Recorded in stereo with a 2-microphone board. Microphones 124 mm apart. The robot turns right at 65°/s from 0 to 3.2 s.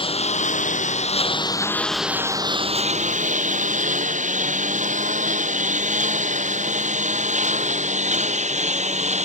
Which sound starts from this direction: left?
A lawn mower, at 0.0 s.